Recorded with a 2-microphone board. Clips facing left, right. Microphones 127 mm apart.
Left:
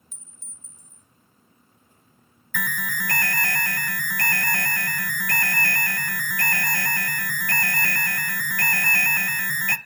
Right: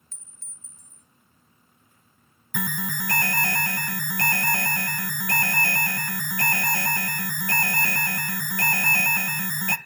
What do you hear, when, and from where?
0.1 s a clink: 15° left (ahead or behind), 1.9 m
2.5 s an alarm: 20° right (ahead or behind), 0.7 m